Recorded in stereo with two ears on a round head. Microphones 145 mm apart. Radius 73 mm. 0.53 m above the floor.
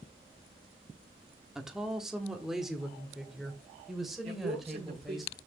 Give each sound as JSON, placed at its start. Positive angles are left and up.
{"t": 1.6, "sound": "a woman speaking", "side_deg": -5, "distance_m": 1.3}
{"t": 4.2, "sound": "a man speaking", "side_deg": -40, "distance_m": 7.0}